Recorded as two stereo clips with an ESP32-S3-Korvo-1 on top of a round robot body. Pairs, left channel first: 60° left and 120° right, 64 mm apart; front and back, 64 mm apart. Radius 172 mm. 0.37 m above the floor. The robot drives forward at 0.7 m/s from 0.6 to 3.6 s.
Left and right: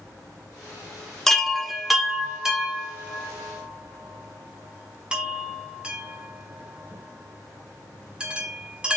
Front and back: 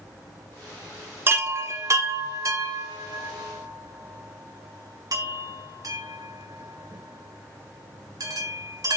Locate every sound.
1.3 s a chime: 140° left, 1.6 m; by 9.0 s 165° left, 3 m